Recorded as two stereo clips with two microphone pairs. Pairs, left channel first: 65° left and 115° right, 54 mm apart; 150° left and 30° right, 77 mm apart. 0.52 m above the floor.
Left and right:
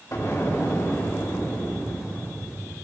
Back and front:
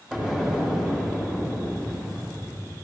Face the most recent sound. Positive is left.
turn(degrees=50)